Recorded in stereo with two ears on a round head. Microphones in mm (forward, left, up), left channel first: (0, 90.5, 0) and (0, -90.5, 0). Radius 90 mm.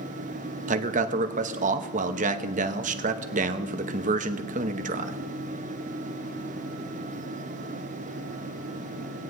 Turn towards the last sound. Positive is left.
turn(degrees=-40)  # may be behind; listen again after turning